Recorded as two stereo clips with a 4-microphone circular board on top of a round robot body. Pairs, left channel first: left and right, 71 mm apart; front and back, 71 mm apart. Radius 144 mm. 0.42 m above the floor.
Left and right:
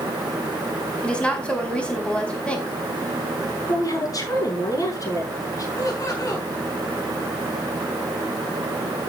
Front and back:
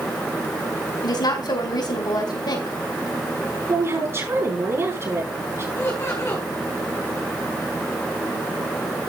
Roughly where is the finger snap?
I don't hear a finger snap.